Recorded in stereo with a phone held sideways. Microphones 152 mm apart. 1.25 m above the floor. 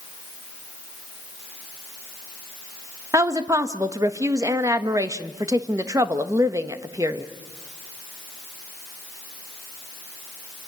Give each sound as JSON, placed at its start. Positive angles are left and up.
{"t": 3.1, "sound": "a woman speaking", "side_deg": -20, "distance_m": 1.2}